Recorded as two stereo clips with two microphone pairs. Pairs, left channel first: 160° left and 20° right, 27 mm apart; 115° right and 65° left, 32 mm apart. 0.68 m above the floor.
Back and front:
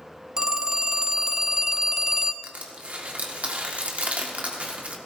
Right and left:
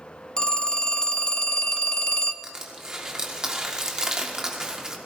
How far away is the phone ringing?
About 0.6 m.